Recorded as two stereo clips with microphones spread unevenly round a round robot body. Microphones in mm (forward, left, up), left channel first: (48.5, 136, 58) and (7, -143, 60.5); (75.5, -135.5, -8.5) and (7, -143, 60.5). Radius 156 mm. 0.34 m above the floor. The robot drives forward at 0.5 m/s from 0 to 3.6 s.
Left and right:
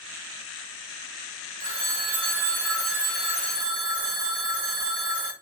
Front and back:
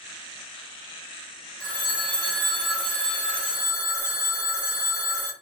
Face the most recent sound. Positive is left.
turn(degrees=-150)